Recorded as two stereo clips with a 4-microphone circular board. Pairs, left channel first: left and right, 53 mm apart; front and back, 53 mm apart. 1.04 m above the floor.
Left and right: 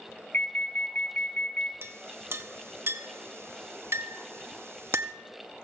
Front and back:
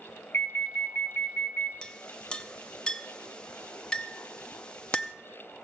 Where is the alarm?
40° left, 0.7 m.